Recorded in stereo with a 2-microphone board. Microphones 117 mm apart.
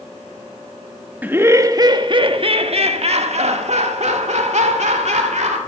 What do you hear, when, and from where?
1.2 s laughter: 15° right (ahead or behind), 0.8 m; by 5.6 s 75° right (ahead or behind), 2.5 m